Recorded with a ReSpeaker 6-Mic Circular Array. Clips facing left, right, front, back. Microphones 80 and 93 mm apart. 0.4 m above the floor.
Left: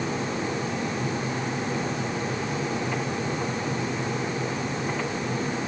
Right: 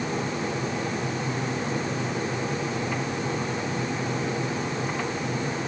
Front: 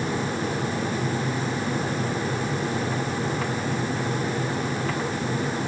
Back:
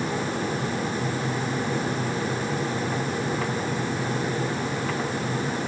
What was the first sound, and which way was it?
Only background noise.